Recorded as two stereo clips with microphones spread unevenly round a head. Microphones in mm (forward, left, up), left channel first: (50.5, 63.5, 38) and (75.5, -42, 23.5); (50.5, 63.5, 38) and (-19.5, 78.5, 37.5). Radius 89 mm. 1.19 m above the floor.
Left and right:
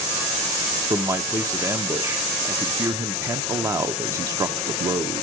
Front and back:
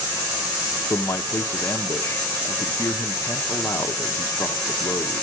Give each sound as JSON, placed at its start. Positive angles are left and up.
{"t": 0.9, "sound": "a man speaking", "azimuth_deg": -50, "distance_m": 0.7}